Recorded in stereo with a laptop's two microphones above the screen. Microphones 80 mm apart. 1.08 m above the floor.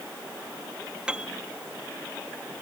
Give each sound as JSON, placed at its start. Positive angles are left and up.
{"t": 1.1, "sound": "a piano", "side_deg": -15}